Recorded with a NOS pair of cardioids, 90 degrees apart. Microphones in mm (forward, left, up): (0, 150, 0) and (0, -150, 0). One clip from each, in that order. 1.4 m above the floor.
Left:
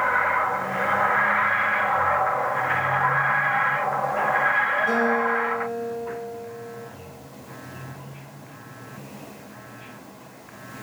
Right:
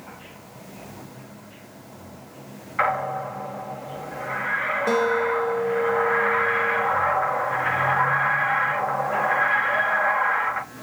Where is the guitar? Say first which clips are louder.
Even; 55° right, 0.7 m.